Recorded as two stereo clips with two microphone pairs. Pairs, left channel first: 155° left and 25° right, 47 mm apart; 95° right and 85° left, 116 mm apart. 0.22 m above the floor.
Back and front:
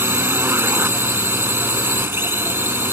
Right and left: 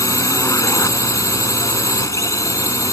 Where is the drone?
40° right.